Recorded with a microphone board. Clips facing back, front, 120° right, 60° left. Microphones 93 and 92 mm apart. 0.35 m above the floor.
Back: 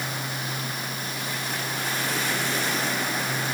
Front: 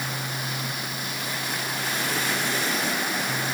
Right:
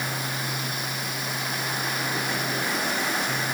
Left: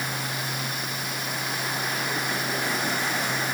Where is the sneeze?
No sneeze in this recording.